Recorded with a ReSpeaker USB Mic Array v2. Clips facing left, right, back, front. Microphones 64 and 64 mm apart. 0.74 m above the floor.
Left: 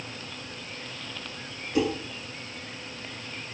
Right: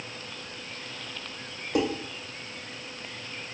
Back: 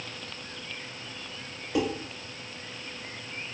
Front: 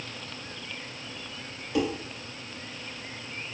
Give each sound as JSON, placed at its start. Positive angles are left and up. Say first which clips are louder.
{"t": 1.8, "sound": "dishes clattering", "louder": "left 1 dB, even", "azimuth_deg": -115, "distance_m": 1.9}